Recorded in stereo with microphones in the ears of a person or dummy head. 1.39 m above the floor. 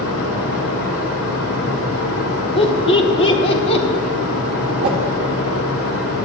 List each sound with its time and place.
0.0 s a fan: 80° left, 1.9 m
2.6 s laughter: 35° left (ahead or behind), 1.0 m
4.8 s a whoosh: 35° right (ahead or behind), 1.3 m